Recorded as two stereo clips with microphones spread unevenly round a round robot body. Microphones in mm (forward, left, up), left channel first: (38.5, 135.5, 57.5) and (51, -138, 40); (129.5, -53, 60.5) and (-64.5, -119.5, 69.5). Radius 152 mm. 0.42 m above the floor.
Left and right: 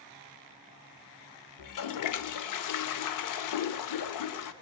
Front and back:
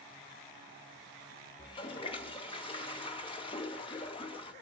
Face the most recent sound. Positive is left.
turn(degrees=85)